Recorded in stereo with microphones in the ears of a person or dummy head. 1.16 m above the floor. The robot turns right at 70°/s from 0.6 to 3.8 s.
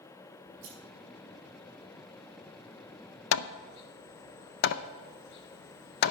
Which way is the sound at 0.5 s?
75° right (ahead or behind).